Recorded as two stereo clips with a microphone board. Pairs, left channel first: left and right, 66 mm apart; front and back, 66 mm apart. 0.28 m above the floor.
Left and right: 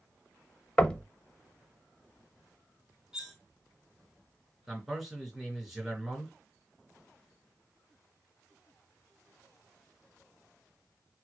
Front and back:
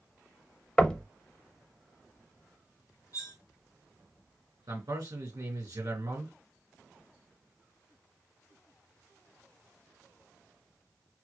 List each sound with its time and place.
0.8 s knocking: 45° left, 0.6 m
3.1 s cutlery clinking: 10° right, 1.1 m
4.7 s a man speaking: 170° right, 3.5 m